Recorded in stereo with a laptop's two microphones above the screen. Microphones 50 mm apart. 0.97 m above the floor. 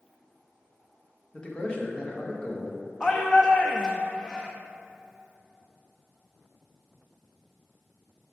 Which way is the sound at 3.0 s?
15° left (ahead or behind).